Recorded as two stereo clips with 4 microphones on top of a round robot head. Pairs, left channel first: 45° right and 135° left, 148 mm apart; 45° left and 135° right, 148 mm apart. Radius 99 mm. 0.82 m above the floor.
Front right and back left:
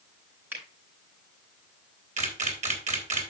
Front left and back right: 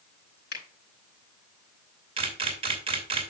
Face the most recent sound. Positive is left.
turn(degrees=170)